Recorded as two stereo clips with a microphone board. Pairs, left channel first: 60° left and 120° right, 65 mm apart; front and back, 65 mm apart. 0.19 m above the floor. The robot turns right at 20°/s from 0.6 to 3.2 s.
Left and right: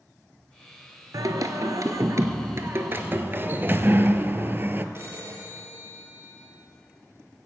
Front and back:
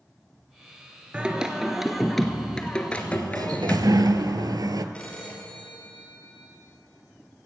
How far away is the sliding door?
About 0.6 m.